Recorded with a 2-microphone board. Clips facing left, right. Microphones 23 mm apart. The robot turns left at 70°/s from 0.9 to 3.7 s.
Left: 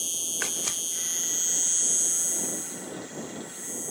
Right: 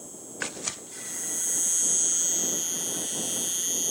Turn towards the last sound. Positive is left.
turn(degrees=-125)